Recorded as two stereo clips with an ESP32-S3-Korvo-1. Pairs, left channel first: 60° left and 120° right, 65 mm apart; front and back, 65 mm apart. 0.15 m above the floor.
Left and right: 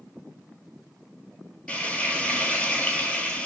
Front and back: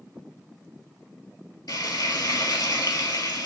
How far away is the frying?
About 0.8 m.